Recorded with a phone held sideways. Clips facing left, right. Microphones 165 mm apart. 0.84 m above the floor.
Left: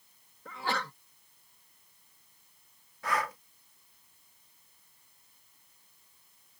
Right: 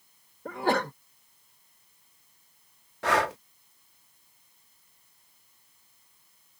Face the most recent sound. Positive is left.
turn(degrees=-85)